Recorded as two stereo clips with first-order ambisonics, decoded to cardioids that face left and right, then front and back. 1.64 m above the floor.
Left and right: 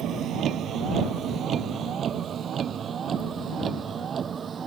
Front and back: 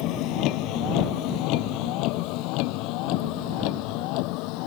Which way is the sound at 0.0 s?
35° right.